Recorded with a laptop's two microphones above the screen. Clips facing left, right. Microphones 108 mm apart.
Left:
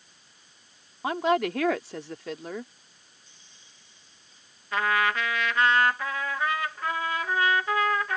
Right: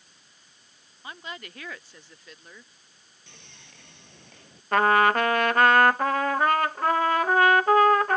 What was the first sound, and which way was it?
A woman speaking, 85° left.